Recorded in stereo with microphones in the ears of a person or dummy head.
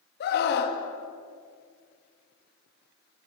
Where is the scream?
55° left (ahead or behind), 2.5 m.